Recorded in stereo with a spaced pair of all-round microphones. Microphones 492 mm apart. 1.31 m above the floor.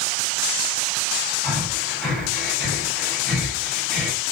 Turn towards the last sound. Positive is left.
turn(degrees=0)  # may be behind; listen again after turning